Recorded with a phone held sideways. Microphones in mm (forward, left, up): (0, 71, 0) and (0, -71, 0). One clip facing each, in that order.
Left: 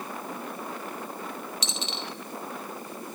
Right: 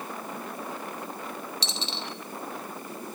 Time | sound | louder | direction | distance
1.6 | a dropped coin | even | 30° right (ahead or behind) | 0.7 m